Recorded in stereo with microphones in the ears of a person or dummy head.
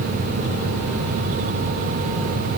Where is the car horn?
No car horn in this recording.